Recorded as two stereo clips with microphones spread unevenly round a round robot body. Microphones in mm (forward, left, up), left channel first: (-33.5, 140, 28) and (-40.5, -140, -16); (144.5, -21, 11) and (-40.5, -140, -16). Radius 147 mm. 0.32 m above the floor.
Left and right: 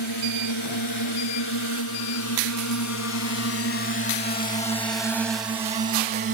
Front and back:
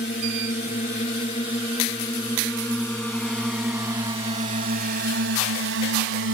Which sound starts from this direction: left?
A drone, at 0.0 s.